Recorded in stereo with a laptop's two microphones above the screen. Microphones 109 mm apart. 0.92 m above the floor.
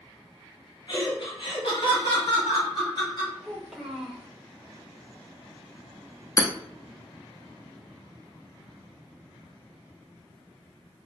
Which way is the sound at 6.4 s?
30° left (ahead or behind).